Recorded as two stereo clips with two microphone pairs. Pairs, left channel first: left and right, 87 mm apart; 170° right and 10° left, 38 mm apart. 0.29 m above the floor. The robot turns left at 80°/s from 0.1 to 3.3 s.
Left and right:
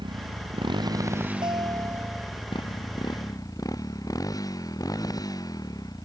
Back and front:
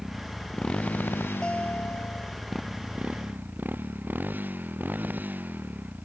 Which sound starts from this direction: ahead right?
A motorcycle, at 0.0 s.